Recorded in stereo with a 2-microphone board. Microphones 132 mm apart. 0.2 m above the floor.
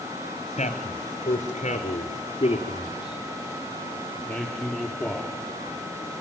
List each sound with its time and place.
0.6 s a man speaking: 65° left (ahead or behind), 3.5 m; by 5.3 s centre (ahead or behind), 5 m